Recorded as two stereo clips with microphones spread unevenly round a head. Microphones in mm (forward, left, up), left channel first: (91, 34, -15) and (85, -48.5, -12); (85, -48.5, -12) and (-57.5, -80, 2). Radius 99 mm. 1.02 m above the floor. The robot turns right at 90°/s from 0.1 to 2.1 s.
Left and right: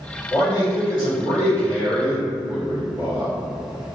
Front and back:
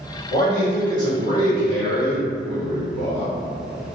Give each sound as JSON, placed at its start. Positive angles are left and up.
{"t": 0.3, "sound": "a man speaking", "azimuth_deg": 25, "distance_m": 2.0}